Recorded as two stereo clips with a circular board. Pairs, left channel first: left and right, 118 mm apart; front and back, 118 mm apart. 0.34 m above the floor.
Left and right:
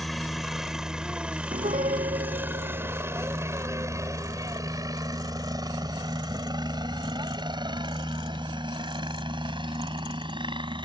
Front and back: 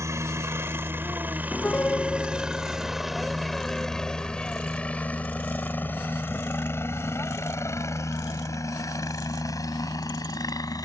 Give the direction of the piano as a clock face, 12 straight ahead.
3 o'clock.